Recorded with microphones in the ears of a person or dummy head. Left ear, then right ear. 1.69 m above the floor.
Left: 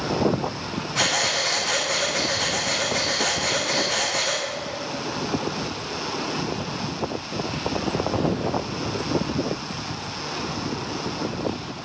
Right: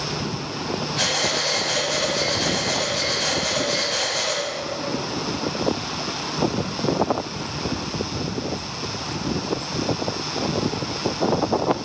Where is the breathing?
60° left (ahead or behind), 2.5 m.